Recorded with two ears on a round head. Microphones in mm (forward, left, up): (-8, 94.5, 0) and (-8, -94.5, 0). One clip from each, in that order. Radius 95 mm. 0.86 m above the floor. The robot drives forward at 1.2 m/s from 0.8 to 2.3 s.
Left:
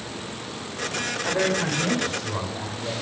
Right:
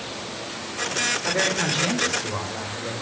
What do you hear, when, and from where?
1.2 s a man speaking: 75° right (ahead or behind), 3.5 m; by 2.9 s 70° right (ahead or behind), 4 m